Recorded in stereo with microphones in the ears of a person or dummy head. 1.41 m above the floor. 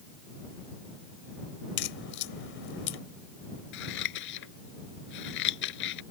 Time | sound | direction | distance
1.8 | a crack | 60° left (ahead or behind) | ?
3.7 | scissors | 55° left (ahead or behind) | ?